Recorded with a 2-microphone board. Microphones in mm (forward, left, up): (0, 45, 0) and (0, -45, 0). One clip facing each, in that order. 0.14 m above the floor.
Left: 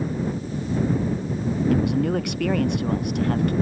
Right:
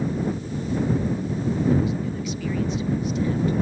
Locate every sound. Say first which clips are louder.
1.7 s a man speaking: left 3 dB; 75° left (ahead or behind); by 3.5 s 70° left (ahead or behind)